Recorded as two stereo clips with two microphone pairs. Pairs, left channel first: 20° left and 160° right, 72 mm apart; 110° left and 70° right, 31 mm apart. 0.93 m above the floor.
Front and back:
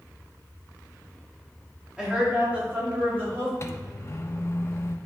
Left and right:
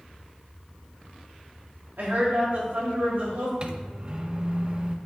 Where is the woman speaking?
80° right, 2 m; by 3.5 s 100° right, 3 m.